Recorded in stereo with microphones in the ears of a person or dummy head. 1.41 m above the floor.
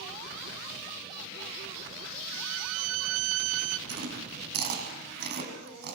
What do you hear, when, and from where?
2.3 s a violin: 75° right (ahead or behind), 0.8 m
3.9 s chewing: 65° right (ahead or behind), 6 m